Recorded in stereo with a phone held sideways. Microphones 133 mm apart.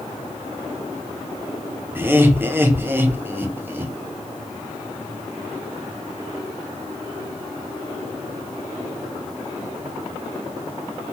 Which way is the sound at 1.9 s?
15° right (ahead or behind).